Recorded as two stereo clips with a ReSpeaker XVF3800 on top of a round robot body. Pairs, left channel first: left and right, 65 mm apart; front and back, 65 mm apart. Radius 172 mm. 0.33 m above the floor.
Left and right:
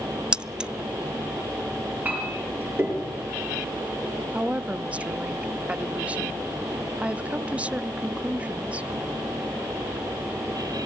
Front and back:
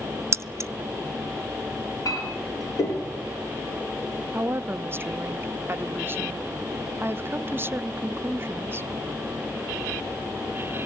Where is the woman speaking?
150° right, 0.9 m.